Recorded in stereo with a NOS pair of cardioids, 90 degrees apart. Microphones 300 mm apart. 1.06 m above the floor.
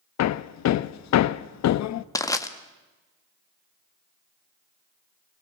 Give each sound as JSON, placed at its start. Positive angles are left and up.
{"t": 0.2, "sound": "hammering", "azimuth_deg": 65, "distance_m": 0.8}
{"t": 2.1, "sound": "crushing", "azimuth_deg": 10, "distance_m": 1.7}